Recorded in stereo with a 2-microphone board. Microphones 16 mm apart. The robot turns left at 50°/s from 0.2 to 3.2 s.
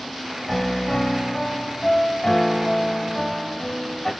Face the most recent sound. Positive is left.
turn(degrees=10)